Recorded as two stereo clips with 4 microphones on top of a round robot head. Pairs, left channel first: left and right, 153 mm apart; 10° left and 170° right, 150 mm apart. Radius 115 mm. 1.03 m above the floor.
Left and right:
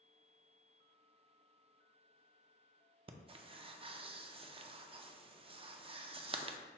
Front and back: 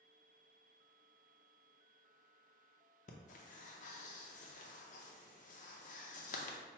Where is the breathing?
35° right, 0.5 m.